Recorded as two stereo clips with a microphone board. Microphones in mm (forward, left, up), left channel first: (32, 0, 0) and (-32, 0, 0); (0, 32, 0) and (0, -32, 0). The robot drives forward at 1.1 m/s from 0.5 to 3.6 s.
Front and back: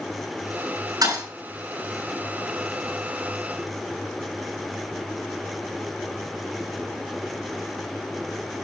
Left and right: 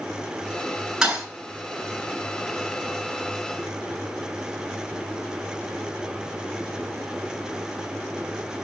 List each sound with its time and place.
1.0 s a thud: 170° right, 5.5 m